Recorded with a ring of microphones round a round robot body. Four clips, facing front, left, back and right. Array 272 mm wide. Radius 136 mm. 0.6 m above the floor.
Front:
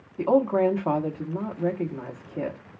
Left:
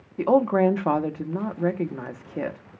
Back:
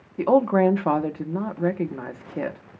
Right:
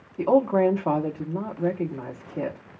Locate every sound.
0.2 s a woman speaking: 140° left, 0.8 m